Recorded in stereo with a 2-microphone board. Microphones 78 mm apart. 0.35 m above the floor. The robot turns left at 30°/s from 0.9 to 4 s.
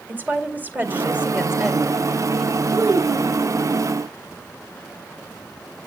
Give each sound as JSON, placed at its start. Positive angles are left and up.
{"t": 0.1, "sound": "a woman speaking", "azimuth_deg": -145, "distance_m": 2.0}
{"t": 2.7, "sound": "a child speaking", "side_deg": -50, "distance_m": 4.5}